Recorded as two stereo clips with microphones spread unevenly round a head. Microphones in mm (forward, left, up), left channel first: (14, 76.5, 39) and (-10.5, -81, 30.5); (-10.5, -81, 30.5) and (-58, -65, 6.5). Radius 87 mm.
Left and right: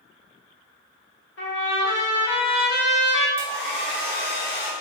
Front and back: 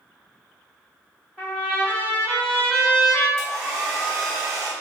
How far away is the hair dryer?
About 1.3 m.